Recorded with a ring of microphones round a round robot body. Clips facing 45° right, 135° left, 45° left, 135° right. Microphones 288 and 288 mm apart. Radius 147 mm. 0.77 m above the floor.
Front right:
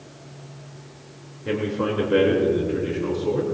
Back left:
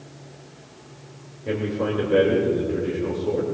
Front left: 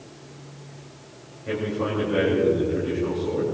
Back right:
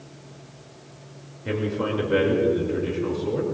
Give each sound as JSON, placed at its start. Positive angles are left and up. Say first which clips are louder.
{"t": 1.4, "sound": "a man speaking", "louder": "front right 1 dB, back right 1 dB", "azimuth_deg": -115, "distance_m": 2.5}